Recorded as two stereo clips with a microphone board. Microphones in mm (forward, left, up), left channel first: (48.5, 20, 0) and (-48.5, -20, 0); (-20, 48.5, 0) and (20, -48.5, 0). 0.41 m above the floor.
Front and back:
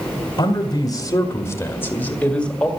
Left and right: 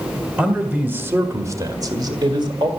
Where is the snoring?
No snoring in this recording.